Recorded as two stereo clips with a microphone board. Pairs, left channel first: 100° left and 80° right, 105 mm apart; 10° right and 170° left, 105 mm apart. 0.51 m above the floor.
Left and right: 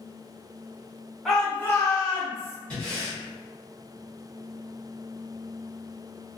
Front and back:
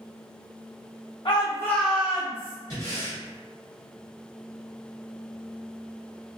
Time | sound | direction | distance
1.2 | a shout | 10° left | 1.1 m
2.7 | breathing | 30° left | 1.4 m